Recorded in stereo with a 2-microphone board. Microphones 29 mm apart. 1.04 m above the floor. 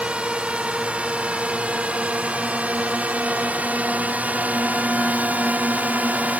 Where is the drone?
45° right (ahead or behind); by 6.4 s 70° right (ahead or behind).